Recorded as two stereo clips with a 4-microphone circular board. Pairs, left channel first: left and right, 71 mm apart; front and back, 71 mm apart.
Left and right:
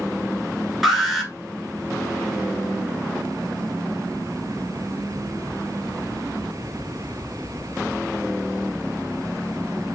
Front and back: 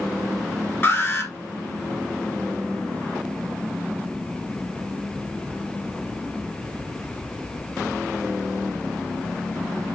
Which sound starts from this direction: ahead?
An alarm, at 0.8 s.